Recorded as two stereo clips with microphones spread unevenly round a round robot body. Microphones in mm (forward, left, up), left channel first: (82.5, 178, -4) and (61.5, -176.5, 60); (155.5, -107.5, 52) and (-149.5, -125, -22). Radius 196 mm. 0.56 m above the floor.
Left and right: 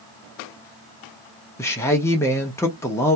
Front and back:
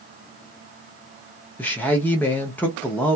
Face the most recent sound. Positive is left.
turn(degrees=115)